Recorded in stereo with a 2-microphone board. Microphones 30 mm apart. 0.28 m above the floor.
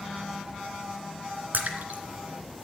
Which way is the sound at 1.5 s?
65° right (ahead or behind).